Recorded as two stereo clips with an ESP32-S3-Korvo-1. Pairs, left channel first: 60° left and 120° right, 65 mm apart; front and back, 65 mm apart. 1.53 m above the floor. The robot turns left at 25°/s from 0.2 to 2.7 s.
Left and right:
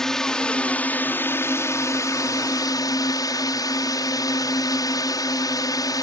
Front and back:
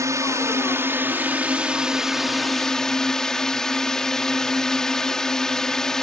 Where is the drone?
145° left; by 6.0 s 80° left.